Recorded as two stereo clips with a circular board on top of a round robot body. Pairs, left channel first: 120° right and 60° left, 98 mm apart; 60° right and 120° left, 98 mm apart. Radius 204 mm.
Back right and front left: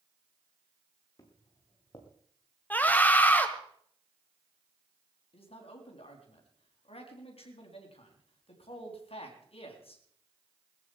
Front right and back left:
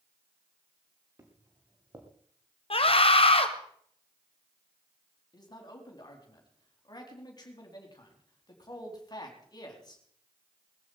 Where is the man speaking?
105° right, 4 m.